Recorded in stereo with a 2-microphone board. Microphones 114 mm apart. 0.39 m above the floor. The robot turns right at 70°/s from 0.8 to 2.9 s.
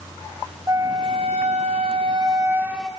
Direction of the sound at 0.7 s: 150° right.